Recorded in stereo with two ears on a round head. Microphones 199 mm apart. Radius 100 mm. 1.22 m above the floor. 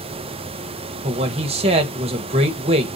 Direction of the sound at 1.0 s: 30° right (ahead or behind).